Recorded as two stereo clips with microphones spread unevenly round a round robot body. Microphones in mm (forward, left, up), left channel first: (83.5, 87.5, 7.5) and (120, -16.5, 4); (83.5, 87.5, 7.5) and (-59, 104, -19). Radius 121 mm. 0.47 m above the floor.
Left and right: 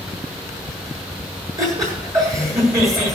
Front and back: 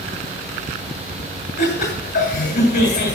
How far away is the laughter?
About 8 m.